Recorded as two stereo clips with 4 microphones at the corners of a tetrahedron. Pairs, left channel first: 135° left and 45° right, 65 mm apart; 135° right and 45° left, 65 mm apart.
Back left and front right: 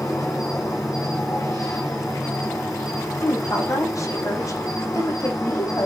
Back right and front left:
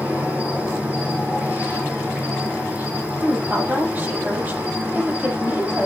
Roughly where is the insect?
Behind left.